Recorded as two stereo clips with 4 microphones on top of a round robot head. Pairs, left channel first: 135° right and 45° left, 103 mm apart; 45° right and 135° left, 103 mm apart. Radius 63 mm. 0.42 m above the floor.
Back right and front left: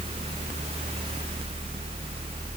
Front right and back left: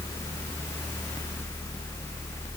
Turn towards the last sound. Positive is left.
No sound to turn to.